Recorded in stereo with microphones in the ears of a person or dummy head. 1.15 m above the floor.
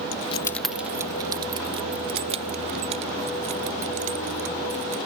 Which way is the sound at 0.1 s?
55° left (ahead or behind).